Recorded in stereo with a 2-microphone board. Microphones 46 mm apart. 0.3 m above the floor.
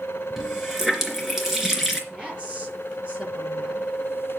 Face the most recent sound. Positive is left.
turn(degrees=-20)  # may be behind; listen again after turning